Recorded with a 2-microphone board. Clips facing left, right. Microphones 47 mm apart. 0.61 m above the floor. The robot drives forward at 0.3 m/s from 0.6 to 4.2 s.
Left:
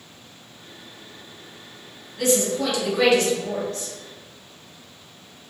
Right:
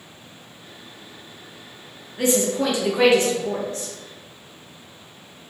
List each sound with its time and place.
2.2 s a woman speaking: 25° right (ahead or behind), 0.6 m; by 3.9 s 20° right (ahead or behind), 0.7 m